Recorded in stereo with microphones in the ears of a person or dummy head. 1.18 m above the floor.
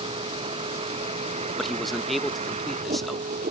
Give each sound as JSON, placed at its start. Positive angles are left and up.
{"t": 0.0, "sound": "a vehicle", "side_deg": -30}
{"t": 1.6, "sound": "a man speaking", "side_deg": 0}